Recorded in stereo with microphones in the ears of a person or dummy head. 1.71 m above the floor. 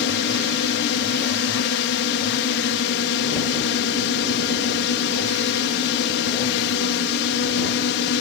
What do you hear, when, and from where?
0.0 s a drone: 60° left (ahead or behind)